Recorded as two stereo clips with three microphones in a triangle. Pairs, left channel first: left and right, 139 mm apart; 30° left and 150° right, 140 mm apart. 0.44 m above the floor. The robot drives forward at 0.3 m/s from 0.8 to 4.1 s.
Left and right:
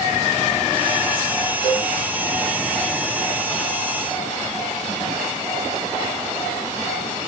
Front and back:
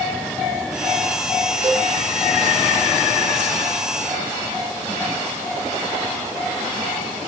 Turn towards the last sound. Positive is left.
turn(degrees=-175)